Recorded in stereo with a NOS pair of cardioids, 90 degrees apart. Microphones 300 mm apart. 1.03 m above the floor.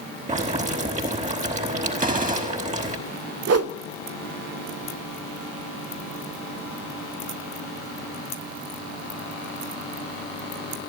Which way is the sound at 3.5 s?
55° right.